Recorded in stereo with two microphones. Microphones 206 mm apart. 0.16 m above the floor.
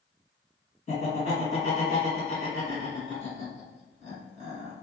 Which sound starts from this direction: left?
Laughter, at 0.9 s.